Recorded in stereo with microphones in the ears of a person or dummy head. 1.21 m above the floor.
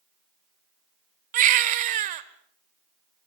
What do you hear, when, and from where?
1.3 s a baby crying: 45° right (ahead or behind), 1.4 m